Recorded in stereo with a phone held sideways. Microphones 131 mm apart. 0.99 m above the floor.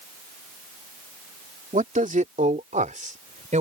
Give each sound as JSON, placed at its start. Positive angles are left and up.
{"t": 1.7, "sound": "a man speaking", "side_deg": -75}